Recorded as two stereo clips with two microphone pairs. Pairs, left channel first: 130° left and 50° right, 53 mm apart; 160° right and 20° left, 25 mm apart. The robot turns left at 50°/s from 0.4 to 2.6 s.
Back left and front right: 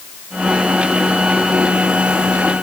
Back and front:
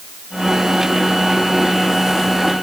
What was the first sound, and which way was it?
Only background noise.